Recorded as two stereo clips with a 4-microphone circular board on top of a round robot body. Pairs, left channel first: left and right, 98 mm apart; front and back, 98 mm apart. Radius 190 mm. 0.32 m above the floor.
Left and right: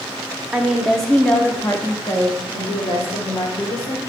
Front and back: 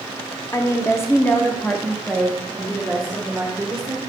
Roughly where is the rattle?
I don't hear a rattle.